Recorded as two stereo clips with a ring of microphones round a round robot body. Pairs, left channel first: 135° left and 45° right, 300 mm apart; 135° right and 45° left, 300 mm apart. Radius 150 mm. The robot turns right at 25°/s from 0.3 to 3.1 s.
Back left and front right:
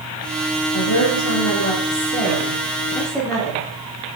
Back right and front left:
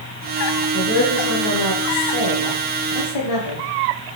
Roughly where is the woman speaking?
Behind.